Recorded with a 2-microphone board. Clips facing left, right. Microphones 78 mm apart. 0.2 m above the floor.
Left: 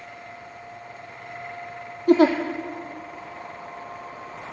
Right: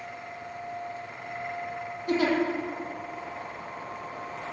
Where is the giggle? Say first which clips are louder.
Left 9 dB; 45° left (ahead or behind), 3 m.